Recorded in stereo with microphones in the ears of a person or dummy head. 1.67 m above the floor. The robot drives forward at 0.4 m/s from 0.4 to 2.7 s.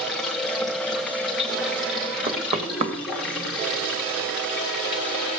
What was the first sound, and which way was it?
Running water, 5° left (ahead or behind).